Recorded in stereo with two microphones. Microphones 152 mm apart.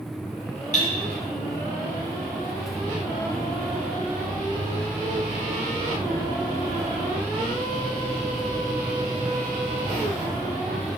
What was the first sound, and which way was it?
Cutlery clinking, 60° left (ahead or behind).